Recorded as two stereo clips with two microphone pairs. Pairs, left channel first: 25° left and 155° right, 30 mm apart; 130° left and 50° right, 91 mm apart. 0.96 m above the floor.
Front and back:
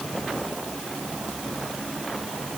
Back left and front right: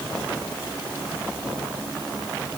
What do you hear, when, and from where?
Only background noise.